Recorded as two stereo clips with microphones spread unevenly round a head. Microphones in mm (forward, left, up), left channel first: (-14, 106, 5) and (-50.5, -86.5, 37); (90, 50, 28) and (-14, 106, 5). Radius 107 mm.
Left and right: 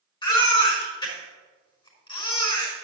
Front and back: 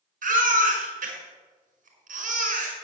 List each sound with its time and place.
0.2 s a baby crying: 150° left, 5.5 m